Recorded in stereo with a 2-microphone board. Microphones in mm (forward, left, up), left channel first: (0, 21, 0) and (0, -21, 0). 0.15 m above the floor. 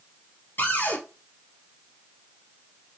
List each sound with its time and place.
0.6 s a cupboard door: 50° left (ahead or behind), 2.5 m